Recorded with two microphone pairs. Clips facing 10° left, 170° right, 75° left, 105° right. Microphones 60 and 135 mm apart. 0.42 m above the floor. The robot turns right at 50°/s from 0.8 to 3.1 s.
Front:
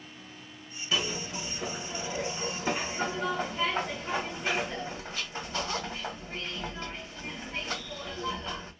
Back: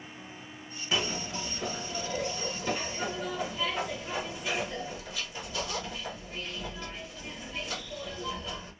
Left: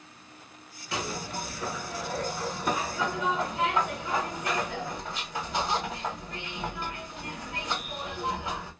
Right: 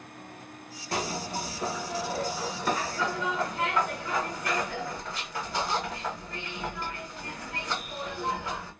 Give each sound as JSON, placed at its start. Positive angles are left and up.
{"t": 0.9, "sound": "a zipper", "azimuth_deg": -95, "distance_m": 1.1}